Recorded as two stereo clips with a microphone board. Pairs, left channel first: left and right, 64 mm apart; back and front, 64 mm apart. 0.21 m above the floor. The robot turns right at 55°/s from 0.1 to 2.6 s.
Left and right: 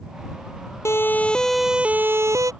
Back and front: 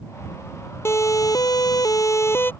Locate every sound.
0.8 s a siren: 135° left; by 2.5 s 120° right